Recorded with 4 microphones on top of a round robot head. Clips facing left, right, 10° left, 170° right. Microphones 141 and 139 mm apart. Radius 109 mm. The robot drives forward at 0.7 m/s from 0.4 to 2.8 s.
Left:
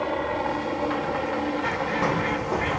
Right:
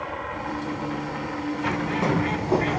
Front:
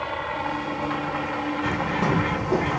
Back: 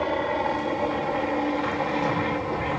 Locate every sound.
0.0 s a helicopter: 150° left; by 2.8 s 135° left
1.6 s a bird: 25° right; by 2.8 s 45° right